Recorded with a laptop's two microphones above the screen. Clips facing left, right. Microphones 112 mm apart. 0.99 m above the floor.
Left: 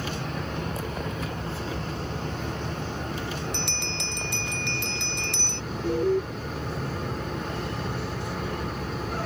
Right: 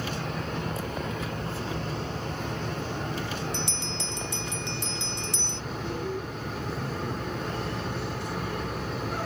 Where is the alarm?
40° left (ahead or behind).